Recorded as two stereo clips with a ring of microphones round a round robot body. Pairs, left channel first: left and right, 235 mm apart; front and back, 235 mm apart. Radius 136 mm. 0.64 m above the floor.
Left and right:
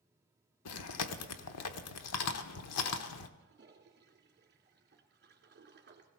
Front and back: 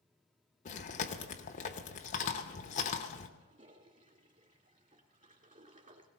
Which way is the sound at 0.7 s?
65° left.